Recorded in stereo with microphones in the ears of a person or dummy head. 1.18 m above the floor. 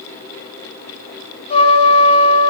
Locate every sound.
1.5 s a trumpet: 35° left (ahead or behind), 0.9 m